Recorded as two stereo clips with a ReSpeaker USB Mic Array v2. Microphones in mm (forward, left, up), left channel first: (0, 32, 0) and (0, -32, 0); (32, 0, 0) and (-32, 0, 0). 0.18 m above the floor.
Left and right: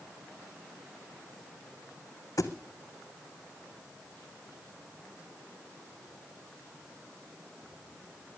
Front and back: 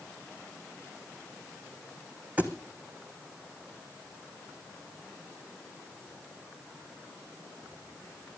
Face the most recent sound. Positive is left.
turn(degrees=115)